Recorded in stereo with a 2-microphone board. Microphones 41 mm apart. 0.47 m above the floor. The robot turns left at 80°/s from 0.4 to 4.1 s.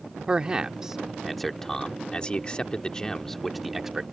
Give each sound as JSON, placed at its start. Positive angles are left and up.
{"t": 0.3, "sound": "a man speaking", "side_deg": -20}